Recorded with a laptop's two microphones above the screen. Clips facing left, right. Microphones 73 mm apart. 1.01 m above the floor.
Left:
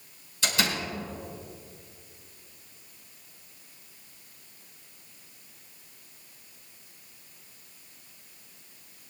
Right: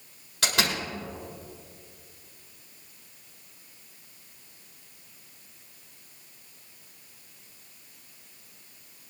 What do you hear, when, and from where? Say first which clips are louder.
0.4 s a door slam: right 1 dB; 80° right, 3.5 m